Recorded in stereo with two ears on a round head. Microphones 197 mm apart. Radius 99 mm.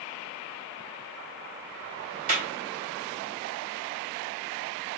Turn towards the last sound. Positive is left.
turn(degrees=-40)  # may be behind; listen again after turning